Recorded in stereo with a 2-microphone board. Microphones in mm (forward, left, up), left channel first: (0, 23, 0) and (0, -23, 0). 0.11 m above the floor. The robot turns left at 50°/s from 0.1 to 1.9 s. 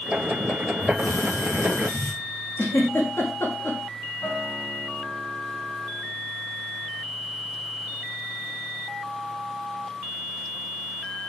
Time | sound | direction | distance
0.8 | a hiss | 135° left | 6 m
2.6 | a giggle | 65° left (ahead or behind) | 5.5 m
4.2 | a guitar | 60° left (ahead or behind) | 8.5 m